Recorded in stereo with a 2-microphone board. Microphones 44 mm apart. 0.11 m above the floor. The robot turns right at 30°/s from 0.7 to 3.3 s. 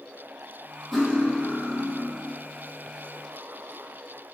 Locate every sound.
0.9 s cutlery clinking: 5° left, 2 m; by 2.2 s 40° left, 2 m